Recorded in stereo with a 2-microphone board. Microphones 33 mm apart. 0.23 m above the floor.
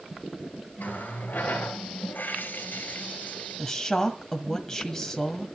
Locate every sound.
0.8 s a running tap: 75° left (ahead or behind), 2 m
3.6 s a woman speaking: 15° left (ahead or behind), 1.6 m